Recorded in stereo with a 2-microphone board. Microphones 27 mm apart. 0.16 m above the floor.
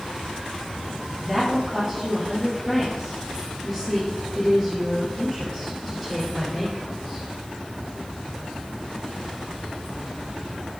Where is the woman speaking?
10° left (ahead or behind), 3.5 m.